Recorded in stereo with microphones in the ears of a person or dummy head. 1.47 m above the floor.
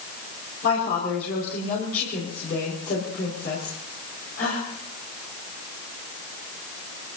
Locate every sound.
0.6 s a woman speaking: 55° left (ahead or behind), 5 m